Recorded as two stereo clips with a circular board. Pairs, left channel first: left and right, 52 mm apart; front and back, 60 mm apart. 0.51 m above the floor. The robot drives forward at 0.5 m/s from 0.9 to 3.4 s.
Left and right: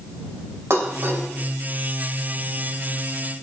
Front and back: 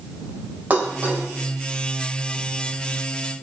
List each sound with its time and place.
0.7 s dishes clattering: 120° right, 1.6 m; by 1.2 s 125° right, 1.7 m